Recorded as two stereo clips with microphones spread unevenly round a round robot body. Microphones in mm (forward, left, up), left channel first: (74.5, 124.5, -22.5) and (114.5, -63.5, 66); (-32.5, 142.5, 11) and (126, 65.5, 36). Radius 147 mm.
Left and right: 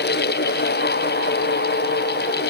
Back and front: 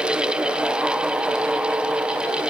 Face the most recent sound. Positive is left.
No sound to turn to.